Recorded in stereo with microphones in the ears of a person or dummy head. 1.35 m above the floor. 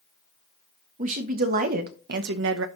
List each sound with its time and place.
1.0 s a woman speaking: 45° right (ahead or behind), 1.5 m; by 2.7 s 75° right (ahead or behind), 0.8 m